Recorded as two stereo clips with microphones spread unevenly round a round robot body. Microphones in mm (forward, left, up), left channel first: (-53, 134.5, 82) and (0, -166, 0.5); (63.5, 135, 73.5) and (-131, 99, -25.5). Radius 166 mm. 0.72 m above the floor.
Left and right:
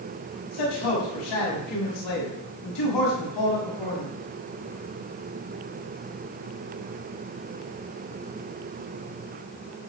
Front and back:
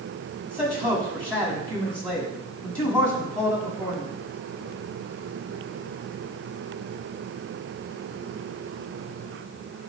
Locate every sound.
0.5 s a man speaking: 100° left, 6.5 m